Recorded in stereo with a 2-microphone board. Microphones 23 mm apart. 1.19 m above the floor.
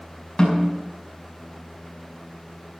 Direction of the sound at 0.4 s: 35° left (ahead or behind).